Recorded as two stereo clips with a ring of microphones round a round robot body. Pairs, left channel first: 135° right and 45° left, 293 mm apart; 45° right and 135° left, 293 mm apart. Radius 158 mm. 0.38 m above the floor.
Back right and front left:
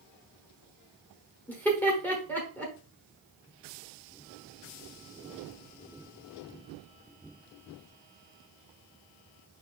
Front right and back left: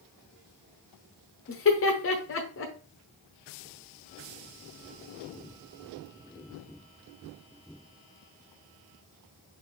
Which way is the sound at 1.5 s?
55° right.